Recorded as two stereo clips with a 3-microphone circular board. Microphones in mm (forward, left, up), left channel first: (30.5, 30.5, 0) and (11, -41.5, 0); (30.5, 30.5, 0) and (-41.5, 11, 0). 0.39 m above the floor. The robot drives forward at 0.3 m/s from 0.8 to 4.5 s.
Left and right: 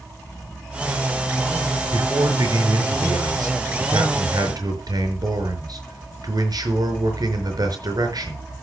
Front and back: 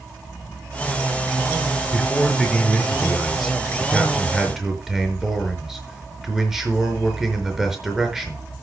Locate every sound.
1.9 s a man speaking: 70° right, 5 m; by 8.4 s 80° right, 4.5 m